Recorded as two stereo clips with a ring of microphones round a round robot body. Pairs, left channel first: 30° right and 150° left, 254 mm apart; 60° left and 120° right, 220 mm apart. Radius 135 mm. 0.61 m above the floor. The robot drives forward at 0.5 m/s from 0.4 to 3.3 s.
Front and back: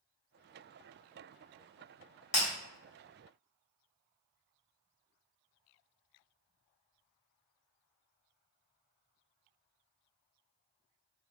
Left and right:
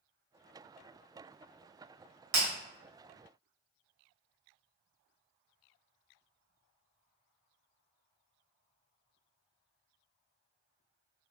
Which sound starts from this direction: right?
Breaking glass, at 2.3 s.